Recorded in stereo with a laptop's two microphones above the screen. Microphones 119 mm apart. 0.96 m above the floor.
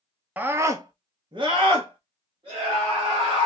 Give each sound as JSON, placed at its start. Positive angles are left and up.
{"t": 0.4, "sound": "a scream", "side_deg": -15, "distance_m": 0.7}